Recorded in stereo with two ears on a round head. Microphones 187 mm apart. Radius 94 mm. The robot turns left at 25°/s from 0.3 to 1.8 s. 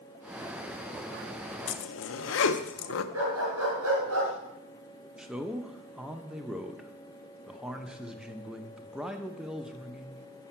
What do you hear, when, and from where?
1.7 s a zipper: 65° left (ahead or behind), 0.6 m
3.1 s a dog barking: 70° right (ahead or behind), 4 m
5.2 s a man speaking: 5° right (ahead or behind), 0.6 m